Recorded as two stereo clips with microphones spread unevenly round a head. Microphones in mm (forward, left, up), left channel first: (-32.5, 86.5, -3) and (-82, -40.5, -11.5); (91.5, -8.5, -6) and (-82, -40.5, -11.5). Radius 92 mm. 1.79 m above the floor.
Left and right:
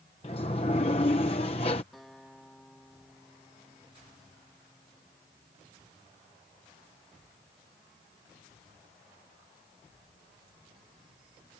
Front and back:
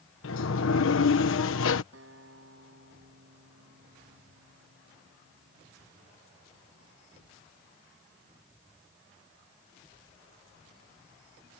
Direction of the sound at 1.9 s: 160° left.